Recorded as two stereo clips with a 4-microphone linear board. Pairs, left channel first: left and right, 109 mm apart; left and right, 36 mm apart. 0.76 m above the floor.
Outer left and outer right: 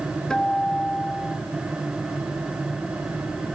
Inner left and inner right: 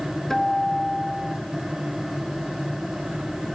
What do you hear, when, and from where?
0.3 s a guitar: 5° left (ahead or behind), 1.7 m